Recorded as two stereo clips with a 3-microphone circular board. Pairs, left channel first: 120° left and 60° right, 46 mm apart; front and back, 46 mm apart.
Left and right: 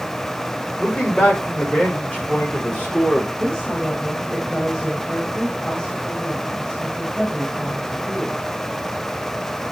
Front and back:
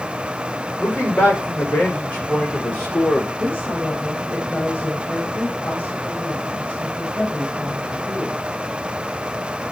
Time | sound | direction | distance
0.8 | a man speaking | 60° left | 10 m
3.4 | a woman speaking | 55° left | 7 m